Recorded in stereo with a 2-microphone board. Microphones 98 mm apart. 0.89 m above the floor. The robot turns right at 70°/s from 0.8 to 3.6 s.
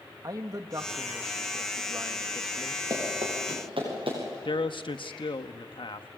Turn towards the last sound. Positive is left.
turn(degrees=65)  # may be behind; listen again after turning